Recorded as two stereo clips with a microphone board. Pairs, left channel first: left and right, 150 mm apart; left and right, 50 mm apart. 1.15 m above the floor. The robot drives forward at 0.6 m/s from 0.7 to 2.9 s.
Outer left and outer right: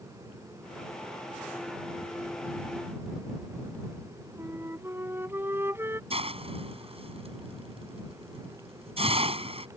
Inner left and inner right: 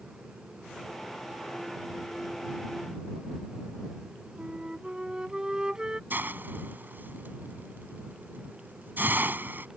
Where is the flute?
15° right (ahead or behind).